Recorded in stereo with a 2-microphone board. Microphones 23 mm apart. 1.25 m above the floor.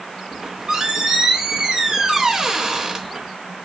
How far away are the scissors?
No scissors in this recording.